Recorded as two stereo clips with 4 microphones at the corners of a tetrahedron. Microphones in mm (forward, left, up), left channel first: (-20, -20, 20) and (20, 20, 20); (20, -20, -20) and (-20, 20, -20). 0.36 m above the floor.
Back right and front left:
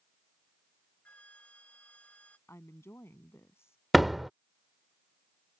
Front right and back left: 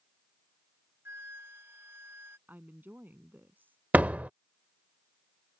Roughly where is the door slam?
Behind left.